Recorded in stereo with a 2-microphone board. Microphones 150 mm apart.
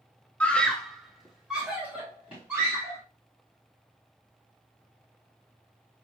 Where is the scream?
10° left (ahead or behind), 0.9 m; by 3.0 s 10° right (ahead or behind), 2 m.